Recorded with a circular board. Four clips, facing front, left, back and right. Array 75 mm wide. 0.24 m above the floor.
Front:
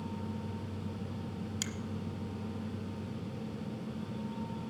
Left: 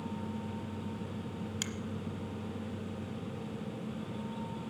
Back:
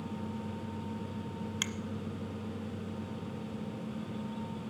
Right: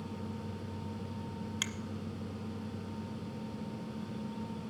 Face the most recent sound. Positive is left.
turn(degrees=-150)